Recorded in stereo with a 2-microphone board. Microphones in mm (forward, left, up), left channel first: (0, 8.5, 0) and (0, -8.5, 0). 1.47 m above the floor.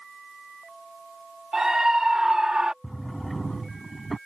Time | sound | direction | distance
1.5 | a scream | 30° right (ahead or behind) | ?
2.8 | a drawer | 5° left (ahead or behind) | ?